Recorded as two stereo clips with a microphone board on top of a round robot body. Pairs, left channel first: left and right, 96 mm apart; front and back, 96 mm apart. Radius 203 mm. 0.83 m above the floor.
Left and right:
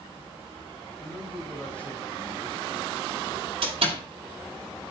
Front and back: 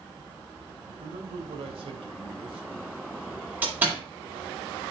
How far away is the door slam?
About 5.5 m.